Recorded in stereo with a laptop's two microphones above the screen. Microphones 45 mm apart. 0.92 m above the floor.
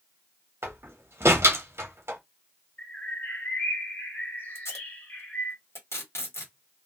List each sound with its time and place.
0.6 s a door slam: 70° right (ahead or behind), 1.0 m
2.8 s a bird: 40° left (ahead or behind), 1.8 m
4.5 s tape being pulled: 80° left, 2.0 m